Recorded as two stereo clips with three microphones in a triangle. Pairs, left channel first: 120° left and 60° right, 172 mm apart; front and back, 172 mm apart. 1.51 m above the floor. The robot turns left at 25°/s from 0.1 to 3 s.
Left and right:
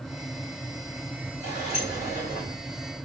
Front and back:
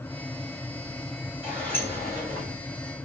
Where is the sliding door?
90° left, 2 m; by 2.5 s 60° left, 2 m.